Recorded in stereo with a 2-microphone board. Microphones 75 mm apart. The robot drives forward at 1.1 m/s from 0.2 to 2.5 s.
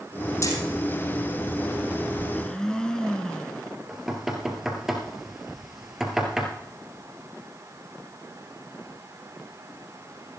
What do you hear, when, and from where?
0.4 s hammering: 35° left (ahead or behind), 5 m; by 0.6 s 40° left (ahead or behind), 4.5 m
2.3 s a blender: 10° left (ahead or behind), 0.9 m
3.9 s knocking: 5° right (ahead or behind), 2.5 m